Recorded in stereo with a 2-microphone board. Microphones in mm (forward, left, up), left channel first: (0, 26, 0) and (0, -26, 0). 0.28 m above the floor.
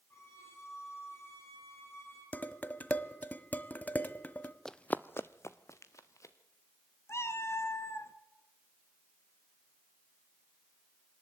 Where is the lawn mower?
No lawn mower in this recording.